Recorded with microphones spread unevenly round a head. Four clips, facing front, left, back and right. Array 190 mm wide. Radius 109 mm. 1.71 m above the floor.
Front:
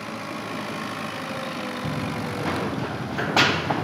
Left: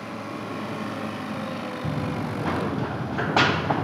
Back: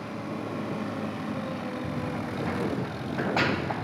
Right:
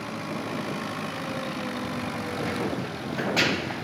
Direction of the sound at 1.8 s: 40° left.